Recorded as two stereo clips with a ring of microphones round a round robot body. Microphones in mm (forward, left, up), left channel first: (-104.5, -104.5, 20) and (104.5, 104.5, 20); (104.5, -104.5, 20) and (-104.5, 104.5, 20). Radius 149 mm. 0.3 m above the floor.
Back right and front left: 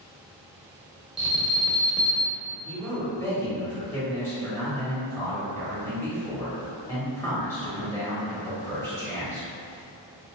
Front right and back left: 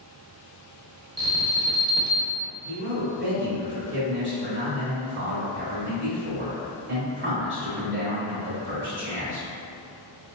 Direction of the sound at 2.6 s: 150° left.